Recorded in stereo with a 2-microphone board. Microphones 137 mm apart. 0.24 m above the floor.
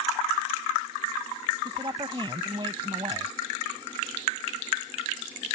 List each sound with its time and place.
1.6 s a woman speaking: 40° right (ahead or behind)